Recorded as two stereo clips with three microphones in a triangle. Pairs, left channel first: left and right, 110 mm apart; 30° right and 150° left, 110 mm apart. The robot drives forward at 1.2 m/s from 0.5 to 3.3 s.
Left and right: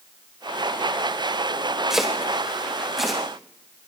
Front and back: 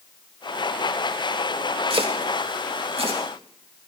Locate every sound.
1.9 s chopping: 175° right, 1.6 m; by 3.2 s straight behind, 3 m